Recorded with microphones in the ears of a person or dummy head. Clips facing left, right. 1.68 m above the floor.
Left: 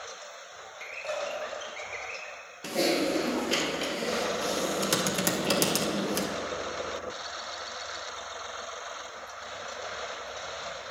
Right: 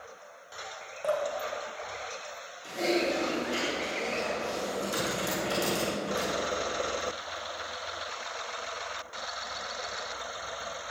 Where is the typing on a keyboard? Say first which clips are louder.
Left 2 dB; 85° left, 1.2 m.